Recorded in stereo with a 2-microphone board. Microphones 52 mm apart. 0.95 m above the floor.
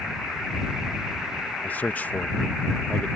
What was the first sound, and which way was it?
A man speaking, 30° left (ahead or behind).